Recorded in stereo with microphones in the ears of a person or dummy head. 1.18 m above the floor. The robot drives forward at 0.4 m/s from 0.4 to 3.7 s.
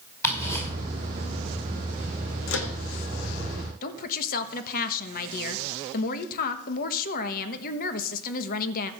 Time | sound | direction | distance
0.2 | ticking | 15° left (ahead or behind) | 5 m
2.5 | a microwave | 75° left (ahead or behind) | 1.7 m
3.8 | a woman speaking | 50° left (ahead or behind) | 1.3 m